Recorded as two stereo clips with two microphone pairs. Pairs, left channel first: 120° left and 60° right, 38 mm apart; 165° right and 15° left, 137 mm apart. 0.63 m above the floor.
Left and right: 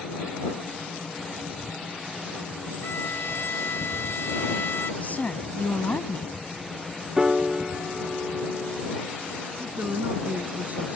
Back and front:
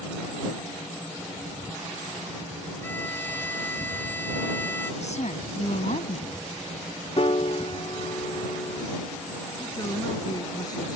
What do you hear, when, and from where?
2.8 s a violin: 120° left
5.0 s a woman speaking: 165° left
7.2 s a piano: 135° right
9.6 s a man speaking: 105° right